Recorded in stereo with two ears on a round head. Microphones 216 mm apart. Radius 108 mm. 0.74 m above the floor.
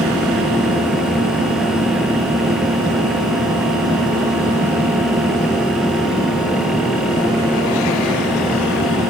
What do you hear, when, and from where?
Only background noise.